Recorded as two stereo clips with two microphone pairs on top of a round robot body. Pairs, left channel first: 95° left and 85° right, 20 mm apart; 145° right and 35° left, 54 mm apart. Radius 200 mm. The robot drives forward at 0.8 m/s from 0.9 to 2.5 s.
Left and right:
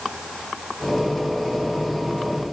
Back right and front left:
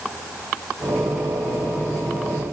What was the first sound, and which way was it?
Only background noise.